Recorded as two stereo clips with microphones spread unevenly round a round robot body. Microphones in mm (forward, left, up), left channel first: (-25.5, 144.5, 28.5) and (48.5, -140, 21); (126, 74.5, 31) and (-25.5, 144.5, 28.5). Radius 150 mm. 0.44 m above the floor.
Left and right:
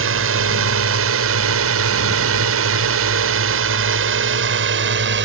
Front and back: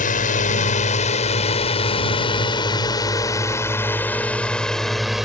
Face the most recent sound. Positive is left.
turn(degrees=-115)